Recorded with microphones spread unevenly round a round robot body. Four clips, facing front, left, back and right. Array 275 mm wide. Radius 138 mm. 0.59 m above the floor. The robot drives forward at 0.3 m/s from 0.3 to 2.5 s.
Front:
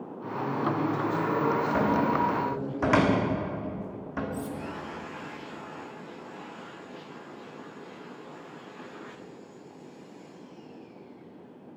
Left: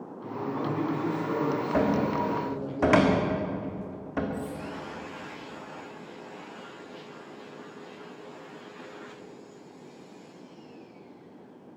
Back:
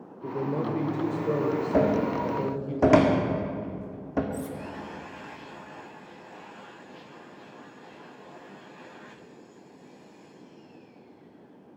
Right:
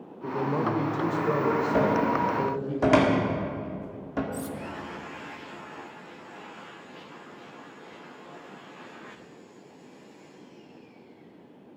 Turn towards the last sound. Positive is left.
turn(degrees=-130)